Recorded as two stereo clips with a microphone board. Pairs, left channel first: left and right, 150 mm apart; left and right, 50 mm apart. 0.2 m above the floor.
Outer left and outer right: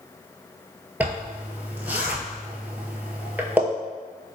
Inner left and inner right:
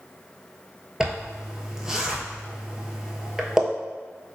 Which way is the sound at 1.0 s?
10° right (ahead or behind).